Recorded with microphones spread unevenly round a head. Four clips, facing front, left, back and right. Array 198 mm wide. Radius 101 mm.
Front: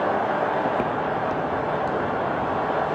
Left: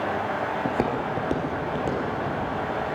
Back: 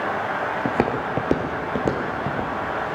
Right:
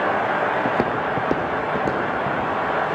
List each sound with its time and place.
0.7 s footsteps: 140° right, 1.3 m; by 2.5 s 155° right, 3 m